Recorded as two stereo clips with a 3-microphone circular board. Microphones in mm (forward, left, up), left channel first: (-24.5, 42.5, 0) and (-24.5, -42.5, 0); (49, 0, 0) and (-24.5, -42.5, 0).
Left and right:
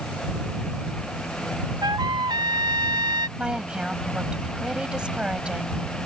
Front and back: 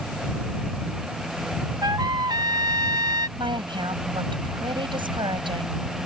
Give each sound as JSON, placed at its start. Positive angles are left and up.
{"t": 1.8, "sound": "a trumpet", "azimuth_deg": -115}
{"t": 3.4, "sound": "a woman speaking", "azimuth_deg": -170}